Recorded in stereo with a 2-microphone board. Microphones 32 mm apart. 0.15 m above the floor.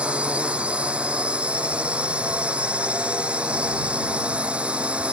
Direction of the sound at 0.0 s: 40° right (ahead or behind).